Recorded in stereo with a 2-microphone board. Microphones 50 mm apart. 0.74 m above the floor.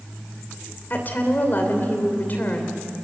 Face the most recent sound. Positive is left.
turn(degrees=40)  # may be behind; listen again after turning